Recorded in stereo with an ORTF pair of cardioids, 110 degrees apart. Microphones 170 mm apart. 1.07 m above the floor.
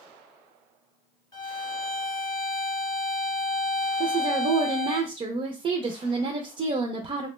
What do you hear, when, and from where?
1.3 s a violin: 20° left, 0.9 m
4.0 s a woman speaking: 35° right, 0.5 m